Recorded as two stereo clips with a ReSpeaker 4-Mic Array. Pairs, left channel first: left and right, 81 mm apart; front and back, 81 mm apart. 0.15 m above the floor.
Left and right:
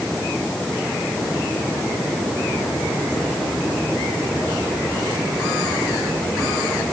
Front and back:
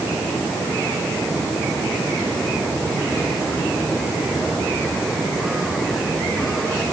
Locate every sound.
Only background noise.